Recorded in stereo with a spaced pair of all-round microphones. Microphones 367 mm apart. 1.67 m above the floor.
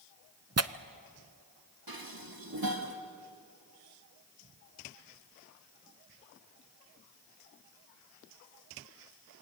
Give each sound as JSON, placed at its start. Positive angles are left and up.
{"t": 0.6, "sound": "tearing paper", "side_deg": -40, "distance_m": 0.7}
{"t": 1.9, "sound": "dishes clattering", "side_deg": -70, "distance_m": 2.0}